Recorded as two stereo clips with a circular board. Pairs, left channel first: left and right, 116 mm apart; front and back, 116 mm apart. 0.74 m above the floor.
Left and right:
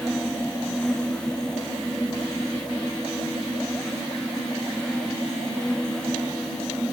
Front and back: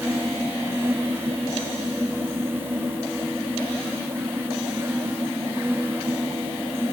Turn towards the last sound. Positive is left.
No sound to turn to.